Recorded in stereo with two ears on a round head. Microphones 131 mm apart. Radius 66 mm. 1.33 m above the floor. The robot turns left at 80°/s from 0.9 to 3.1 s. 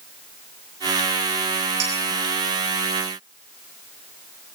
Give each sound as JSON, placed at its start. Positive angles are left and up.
{"t": 1.8, "sound": "dishes clattering", "side_deg": -45, "distance_m": 6.0}